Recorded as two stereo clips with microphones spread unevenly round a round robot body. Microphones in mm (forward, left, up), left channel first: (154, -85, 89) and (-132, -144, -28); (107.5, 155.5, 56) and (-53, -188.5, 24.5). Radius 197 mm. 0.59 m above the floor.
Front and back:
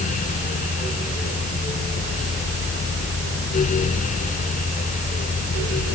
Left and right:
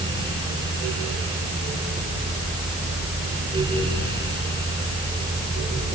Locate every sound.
Only background noise.